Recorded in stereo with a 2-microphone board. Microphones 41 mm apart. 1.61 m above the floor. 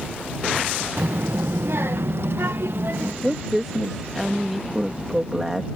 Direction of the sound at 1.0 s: 60° right (ahead or behind).